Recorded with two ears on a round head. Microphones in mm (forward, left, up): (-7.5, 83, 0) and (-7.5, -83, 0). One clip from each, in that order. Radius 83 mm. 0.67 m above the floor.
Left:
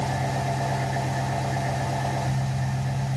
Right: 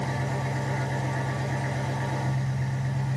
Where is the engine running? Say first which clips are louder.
Left 4 dB; 55° right (ahead or behind), 2 m.